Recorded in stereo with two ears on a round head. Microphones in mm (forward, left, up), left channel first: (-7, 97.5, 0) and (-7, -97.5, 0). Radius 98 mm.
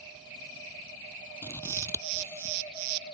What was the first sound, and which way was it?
Scissors, 10° left (ahead or behind).